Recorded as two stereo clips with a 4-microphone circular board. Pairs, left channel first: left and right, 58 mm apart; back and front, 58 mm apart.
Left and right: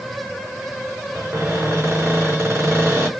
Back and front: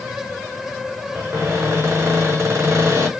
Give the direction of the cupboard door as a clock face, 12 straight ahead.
2 o'clock.